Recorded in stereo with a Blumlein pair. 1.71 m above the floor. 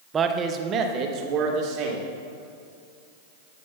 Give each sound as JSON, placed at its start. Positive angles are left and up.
{"t": 0.1, "sound": "a man speaking", "azimuth_deg": -20, "distance_m": 0.5}